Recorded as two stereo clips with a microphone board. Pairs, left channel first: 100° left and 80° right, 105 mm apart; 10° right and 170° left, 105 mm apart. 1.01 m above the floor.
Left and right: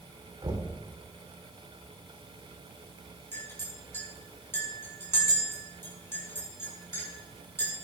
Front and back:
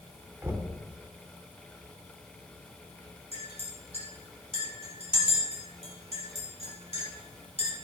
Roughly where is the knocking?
Behind right.